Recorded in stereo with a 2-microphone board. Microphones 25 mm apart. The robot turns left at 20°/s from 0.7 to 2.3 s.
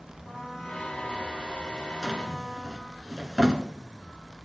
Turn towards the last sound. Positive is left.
turn(degrees=-15)  # may be behind; listen again after turning